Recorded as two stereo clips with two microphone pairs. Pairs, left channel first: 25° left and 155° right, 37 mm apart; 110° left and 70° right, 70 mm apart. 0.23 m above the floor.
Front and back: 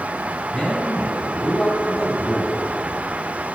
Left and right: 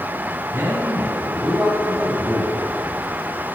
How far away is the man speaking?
About 2 m.